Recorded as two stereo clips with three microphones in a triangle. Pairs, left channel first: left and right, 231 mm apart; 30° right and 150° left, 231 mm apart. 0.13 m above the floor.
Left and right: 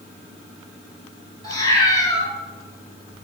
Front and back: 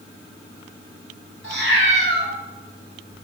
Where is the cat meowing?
155° left, 1.2 m.